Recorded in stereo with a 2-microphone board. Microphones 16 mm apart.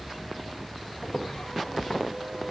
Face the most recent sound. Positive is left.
turn(degrees=60)  # may be behind; listen again after turning